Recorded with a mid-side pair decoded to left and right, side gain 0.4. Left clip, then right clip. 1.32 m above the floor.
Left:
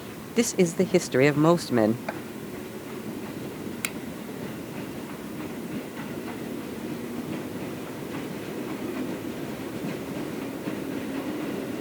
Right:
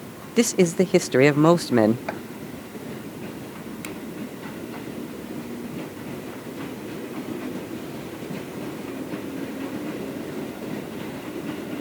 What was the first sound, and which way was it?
A man speaking, 25° right.